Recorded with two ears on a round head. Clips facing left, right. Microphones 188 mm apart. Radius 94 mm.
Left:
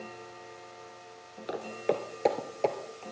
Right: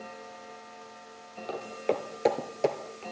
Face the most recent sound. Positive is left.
turn(degrees=-20)  # may be behind; listen again after turning